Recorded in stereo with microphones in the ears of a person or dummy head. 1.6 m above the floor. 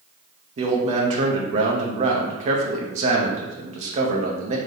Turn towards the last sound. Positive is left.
turn(degrees=-40)  # may be behind; listen again after turning